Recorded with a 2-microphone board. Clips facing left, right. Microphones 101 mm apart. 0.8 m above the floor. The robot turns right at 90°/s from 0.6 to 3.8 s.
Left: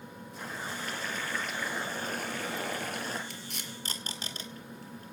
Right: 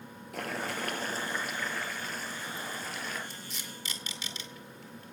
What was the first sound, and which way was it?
Boiling, 85° right.